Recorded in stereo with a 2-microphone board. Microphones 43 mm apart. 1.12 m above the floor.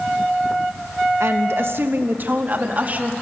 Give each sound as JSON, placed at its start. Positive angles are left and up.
{"t": 1.2, "sound": "a woman speaking", "side_deg": -75, "distance_m": 0.7}